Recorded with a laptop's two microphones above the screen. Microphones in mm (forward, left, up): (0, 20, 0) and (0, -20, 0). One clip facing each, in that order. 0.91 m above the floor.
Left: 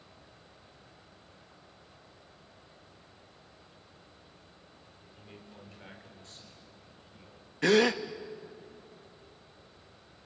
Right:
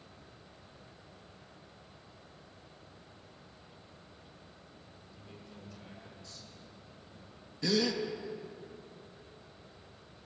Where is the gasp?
60° left (ahead or behind), 1.0 m.